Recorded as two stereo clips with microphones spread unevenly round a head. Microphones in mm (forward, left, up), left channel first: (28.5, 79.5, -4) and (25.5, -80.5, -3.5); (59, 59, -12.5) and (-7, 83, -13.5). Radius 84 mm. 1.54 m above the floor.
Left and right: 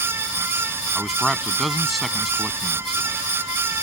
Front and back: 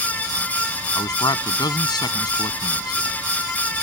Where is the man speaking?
Straight ahead.